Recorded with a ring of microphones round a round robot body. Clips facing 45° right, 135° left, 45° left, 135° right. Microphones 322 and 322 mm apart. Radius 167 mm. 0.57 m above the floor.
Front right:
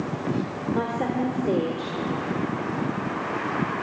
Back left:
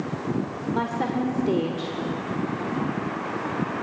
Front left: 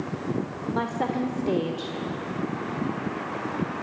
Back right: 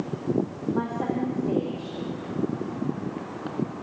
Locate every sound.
0.7 s a woman speaking: 70° left, 1.7 m